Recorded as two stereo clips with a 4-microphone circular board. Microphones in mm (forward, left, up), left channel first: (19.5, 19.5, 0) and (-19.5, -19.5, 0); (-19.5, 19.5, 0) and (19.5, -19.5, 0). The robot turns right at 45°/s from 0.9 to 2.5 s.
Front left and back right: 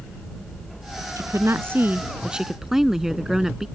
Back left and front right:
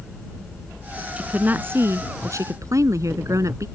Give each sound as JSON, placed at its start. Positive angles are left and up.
{"t": 1.2, "sound": "a woman speaking", "azimuth_deg": -115}